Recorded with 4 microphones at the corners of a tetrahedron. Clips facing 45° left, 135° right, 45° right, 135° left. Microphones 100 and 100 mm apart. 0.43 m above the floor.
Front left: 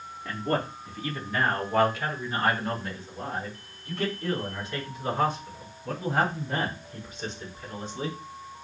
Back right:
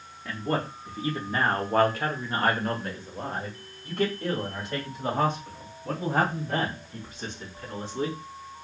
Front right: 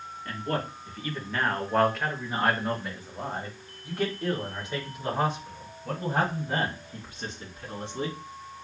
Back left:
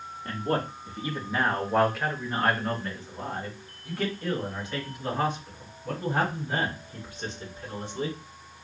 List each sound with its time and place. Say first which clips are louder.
0.2 s a man speaking: even, back left 3 dB; 135° left, 1.0 m; by 8.2 s 105° right, 4 m